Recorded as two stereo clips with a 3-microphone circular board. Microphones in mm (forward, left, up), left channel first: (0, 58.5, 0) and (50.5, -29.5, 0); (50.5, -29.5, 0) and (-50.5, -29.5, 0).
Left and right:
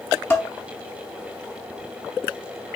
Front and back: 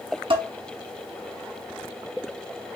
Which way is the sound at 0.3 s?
Straight behind.